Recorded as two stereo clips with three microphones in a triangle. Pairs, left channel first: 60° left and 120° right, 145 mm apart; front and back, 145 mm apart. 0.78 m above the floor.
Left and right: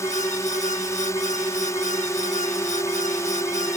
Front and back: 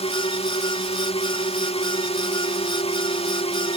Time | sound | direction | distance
0.0 | a drone | straight ahead | ?